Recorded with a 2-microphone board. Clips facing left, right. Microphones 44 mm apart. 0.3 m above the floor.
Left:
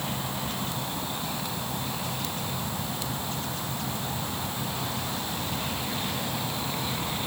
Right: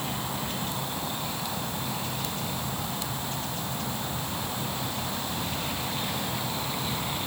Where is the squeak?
I don't hear a squeak.